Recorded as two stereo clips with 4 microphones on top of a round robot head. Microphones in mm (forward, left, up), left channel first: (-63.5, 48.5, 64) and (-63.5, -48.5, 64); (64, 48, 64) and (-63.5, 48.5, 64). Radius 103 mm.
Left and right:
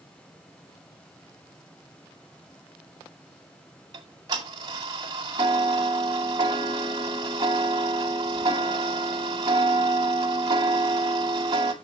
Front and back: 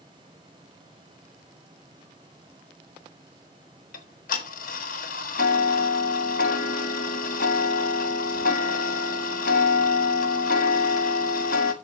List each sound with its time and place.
3.9 s ticking: 25° right, 1.1 m